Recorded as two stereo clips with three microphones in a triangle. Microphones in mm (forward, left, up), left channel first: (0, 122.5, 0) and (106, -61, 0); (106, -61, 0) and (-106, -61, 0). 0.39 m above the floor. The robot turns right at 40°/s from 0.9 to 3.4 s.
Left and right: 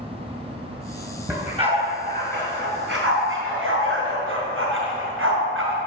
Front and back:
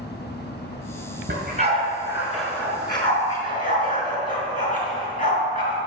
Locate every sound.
1.3 s a dog barking: 135° right, 2.0 m; by 5.8 s 50° right, 2.0 m